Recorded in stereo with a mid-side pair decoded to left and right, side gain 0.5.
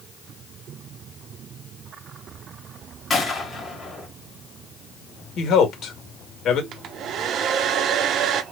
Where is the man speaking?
50° left, 2 m.